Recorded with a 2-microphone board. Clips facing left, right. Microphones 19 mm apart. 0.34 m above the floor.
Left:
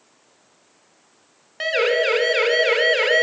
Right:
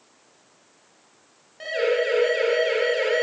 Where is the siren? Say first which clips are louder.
Left 4 dB; 45° left (ahead or behind), 5 m; by 3.2 s 35° left (ahead or behind), 3.5 m.